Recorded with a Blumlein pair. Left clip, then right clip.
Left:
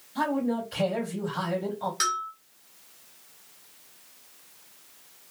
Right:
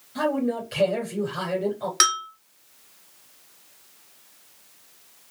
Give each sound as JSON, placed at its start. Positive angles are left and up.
{"t": 0.1, "sound": "a man speaking", "azimuth_deg": -65, "distance_m": 3.0}
{"t": 2.0, "sound": "a bell", "azimuth_deg": -35, "distance_m": 0.9}